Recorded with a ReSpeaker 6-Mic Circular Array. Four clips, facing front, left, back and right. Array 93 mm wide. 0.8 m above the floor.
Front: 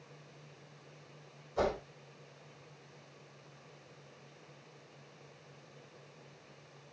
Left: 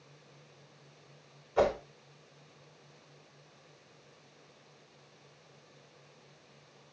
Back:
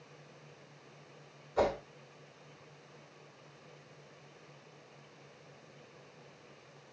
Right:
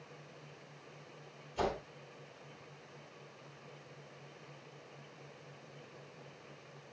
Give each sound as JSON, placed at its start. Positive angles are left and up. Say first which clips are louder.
{"t": 1.6, "sound": "a whoosh", "louder": "left 8 dB, back 2 dB", "azimuth_deg": 105, "distance_m": 4.0}